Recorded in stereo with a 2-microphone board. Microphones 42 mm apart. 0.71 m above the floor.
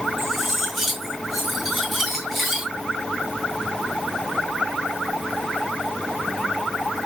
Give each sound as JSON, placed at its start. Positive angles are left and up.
{"t": 0.2, "sound": "cutlery clinking", "side_deg": 0, "distance_m": 3.5}